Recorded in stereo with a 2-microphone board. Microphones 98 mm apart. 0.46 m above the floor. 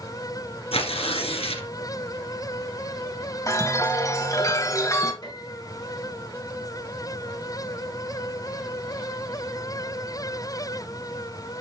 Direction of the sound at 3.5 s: 35° left (ahead or behind).